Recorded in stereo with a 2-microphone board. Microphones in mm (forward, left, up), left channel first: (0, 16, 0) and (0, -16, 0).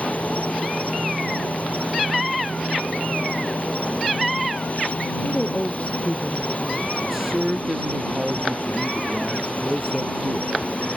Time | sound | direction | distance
0.0 | an insect | 55° left (ahead or behind) | ?
5.2 | a woman speaking | 35° left (ahead or behind) | ?
7.0 | a man speaking | 15° right (ahead or behind) | ?